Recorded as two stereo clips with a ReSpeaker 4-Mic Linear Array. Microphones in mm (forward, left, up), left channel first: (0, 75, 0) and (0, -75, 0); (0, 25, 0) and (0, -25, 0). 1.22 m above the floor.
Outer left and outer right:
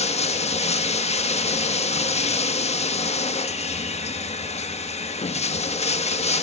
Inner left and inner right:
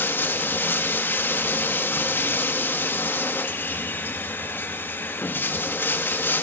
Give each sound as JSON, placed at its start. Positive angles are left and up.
{"t": 0.0, "sound": "running water", "side_deg": 45, "distance_m": 1.2}